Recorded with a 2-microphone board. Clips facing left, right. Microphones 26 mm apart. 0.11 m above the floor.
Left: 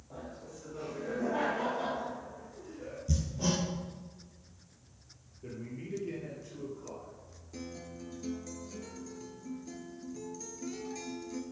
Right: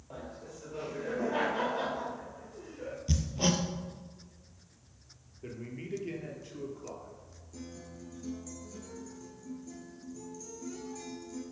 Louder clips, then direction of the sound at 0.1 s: Right 1 dB; 45° right (ahead or behind).